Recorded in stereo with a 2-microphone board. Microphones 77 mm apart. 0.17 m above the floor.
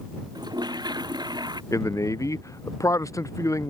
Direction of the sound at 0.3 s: 65° right (ahead or behind).